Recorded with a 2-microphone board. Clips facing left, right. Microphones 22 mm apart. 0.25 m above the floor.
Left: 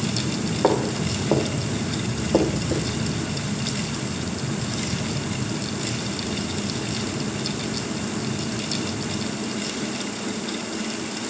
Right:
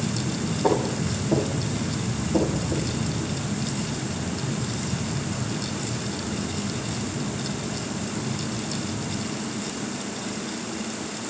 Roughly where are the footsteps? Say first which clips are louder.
Left 2 dB; left.